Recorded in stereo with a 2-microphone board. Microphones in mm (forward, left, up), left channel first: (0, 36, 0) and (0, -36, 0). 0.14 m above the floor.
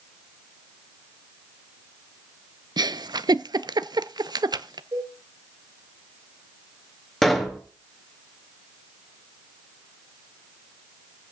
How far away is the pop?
About 1.9 m.